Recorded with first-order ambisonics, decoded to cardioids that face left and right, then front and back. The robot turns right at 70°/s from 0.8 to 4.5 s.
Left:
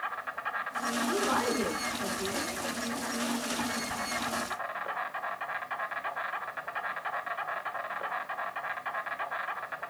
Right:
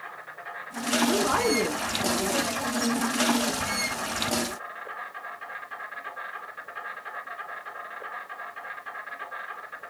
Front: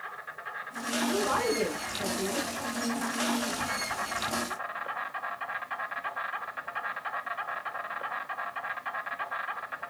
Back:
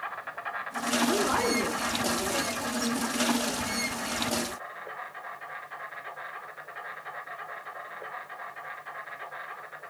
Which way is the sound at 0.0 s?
150° left.